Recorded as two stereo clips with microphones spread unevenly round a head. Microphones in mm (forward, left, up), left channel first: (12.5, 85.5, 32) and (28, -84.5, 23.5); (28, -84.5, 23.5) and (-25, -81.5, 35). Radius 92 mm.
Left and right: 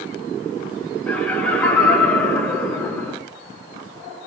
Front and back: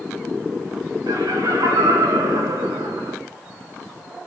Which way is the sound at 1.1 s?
Straight behind.